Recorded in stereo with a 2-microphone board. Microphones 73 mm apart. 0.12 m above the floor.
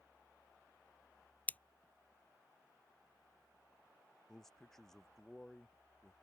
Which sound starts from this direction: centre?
A man speaking, at 4.3 s.